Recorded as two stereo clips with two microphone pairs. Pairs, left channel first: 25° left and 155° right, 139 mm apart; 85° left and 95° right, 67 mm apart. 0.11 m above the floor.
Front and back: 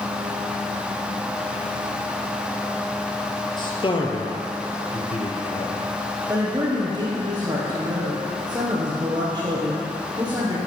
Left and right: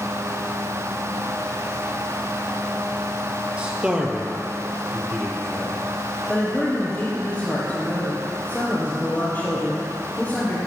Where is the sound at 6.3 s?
150° left, 3.5 m.